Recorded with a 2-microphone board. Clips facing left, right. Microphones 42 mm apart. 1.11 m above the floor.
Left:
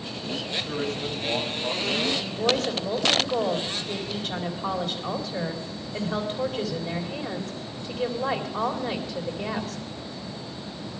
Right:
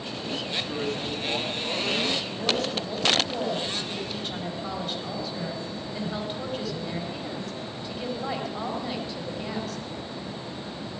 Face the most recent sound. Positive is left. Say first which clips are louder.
# left 3 dB
turn(degrees=65)  # may be behind; listen again after turning